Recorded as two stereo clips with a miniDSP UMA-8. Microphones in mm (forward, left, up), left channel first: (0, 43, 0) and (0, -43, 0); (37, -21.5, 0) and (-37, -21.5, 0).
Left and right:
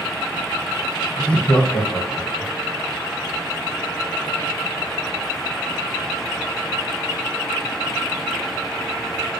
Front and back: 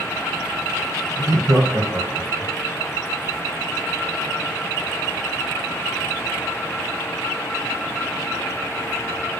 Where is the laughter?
165° left, 2.5 m; by 2.5 s 170° left, 3.5 m.